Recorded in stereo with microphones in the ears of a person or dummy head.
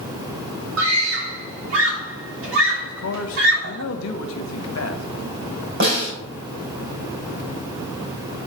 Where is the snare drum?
60° right (ahead or behind), 5 m.